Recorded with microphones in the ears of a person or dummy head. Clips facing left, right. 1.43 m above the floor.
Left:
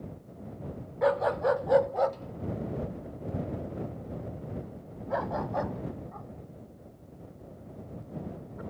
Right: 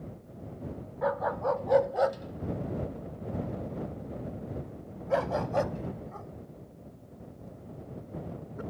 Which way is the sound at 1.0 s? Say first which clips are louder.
Left 4 dB; 35° left (ahead or behind).